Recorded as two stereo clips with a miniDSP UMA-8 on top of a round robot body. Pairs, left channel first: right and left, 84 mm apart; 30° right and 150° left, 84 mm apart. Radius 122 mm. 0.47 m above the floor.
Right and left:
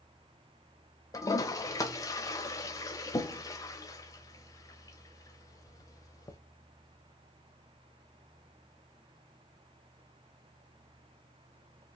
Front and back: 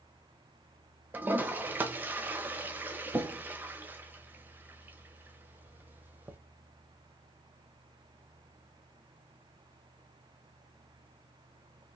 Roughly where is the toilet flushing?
Behind right.